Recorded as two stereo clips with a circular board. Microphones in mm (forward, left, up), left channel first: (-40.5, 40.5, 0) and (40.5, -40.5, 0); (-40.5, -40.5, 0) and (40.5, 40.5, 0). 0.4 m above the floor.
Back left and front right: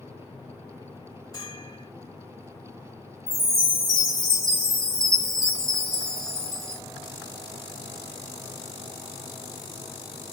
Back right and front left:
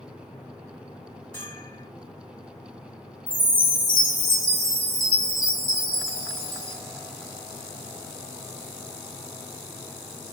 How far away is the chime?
About 1.4 m.